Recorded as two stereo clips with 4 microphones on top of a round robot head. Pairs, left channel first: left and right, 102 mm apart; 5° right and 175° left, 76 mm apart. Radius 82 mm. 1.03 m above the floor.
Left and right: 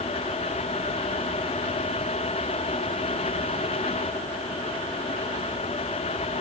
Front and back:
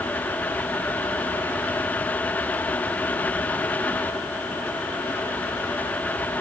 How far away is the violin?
I don't hear a violin.